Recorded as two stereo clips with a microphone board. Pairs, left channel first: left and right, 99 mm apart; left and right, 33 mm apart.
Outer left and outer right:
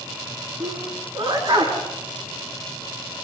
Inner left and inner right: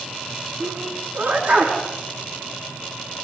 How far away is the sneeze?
About 5 m.